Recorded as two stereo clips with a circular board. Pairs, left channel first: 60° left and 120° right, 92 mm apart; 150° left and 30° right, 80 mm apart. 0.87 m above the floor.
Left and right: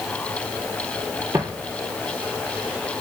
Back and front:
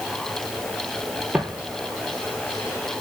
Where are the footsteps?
95° right, 0.9 m; by 3.0 s 165° left, 1.0 m.